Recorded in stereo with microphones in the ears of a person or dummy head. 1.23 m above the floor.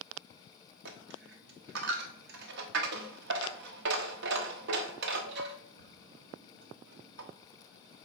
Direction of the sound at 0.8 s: 60° right (ahead or behind).